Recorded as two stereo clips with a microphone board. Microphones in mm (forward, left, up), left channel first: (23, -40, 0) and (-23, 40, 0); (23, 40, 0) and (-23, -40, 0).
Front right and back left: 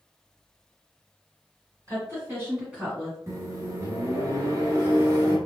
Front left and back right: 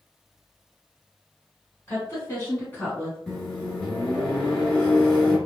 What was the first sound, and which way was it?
A woman speaking, 95° left.